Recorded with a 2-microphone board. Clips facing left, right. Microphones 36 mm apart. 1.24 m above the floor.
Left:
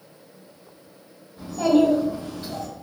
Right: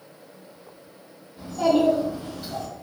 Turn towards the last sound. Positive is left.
turn(degrees=15)  # may be behind; listen again after turning